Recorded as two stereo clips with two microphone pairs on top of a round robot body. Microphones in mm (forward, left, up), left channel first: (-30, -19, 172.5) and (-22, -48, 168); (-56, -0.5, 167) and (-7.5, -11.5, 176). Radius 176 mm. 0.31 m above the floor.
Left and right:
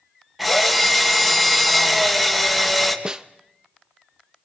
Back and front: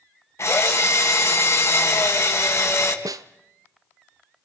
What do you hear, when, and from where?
0.4 s a drill: 160° right, 3.5 m
3.0 s a snare drum: 10° right, 0.6 m